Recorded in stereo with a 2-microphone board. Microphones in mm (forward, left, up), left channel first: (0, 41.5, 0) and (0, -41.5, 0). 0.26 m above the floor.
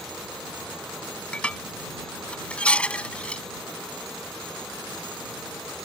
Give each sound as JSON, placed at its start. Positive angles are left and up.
{"t": 1.3, "sound": "dishes clattering", "side_deg": 15}